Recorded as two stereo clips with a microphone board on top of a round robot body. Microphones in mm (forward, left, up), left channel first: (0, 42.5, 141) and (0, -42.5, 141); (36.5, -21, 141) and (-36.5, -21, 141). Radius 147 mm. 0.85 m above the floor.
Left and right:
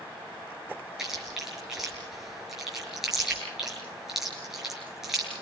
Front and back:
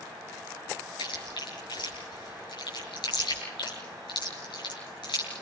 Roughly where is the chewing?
Ahead.